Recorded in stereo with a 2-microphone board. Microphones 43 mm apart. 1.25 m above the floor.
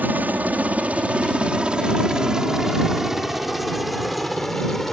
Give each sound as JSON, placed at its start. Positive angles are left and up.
{"t": 0.0, "sound": "a helicopter", "side_deg": -45}